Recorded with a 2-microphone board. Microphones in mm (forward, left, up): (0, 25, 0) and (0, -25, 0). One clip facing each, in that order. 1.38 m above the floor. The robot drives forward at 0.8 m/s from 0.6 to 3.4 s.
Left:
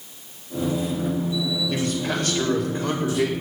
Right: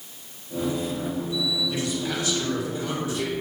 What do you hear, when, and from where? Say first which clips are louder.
1.7 s a man speaking: left 3 dB; 55° left (ahead or behind), 4.5 m; by 3.3 s 70° left (ahead or behind), 4 m